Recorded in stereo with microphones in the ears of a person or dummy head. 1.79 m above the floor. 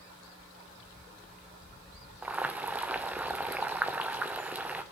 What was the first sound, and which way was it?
Boiling, 5° right (ahead or behind).